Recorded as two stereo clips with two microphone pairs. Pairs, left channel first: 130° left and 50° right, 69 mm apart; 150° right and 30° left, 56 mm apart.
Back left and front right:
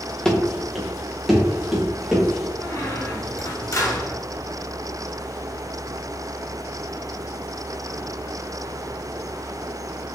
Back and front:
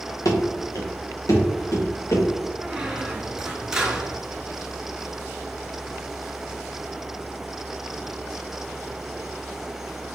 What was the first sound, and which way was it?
Running footsteps, 150° right.